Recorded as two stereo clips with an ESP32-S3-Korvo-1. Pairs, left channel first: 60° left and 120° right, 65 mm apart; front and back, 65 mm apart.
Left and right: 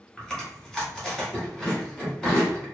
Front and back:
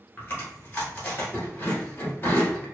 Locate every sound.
0.2 s chewing: 15° right, 1.3 m